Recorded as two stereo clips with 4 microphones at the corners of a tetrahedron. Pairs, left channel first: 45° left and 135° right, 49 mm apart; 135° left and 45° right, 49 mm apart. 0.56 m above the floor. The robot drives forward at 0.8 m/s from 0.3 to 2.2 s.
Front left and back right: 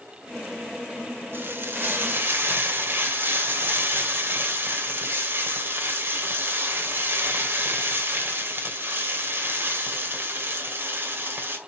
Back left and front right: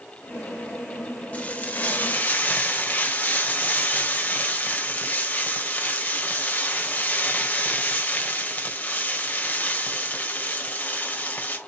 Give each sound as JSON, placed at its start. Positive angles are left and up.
{"t": 1.3, "sound": "frying", "azimuth_deg": -165, "distance_m": 1.6}